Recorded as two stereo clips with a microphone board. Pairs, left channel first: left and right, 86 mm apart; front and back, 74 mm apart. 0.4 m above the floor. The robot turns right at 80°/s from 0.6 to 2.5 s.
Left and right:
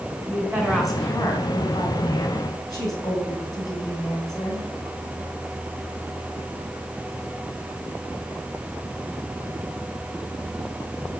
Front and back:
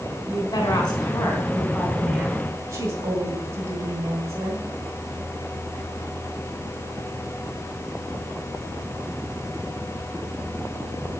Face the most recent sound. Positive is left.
turn(degrees=130)